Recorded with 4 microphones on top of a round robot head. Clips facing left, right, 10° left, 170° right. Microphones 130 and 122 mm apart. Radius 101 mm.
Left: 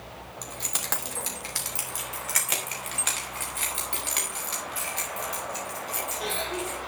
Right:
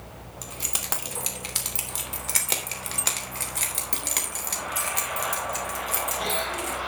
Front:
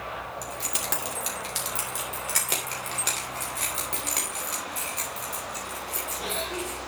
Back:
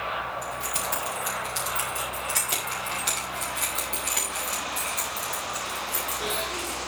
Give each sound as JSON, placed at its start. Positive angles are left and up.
{"t": 0.4, "sound": "keys jangling", "azimuth_deg": -5, "distance_m": 2.5}